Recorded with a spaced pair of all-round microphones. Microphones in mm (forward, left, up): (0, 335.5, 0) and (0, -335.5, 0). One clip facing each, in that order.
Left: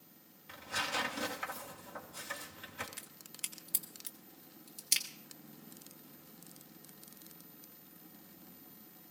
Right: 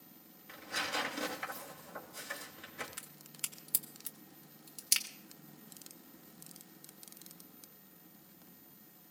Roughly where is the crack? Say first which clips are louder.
Even; centre.